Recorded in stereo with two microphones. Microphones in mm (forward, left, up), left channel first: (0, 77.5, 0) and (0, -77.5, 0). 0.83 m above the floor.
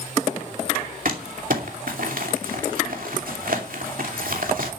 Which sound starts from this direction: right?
Crumpling, at 1.1 s.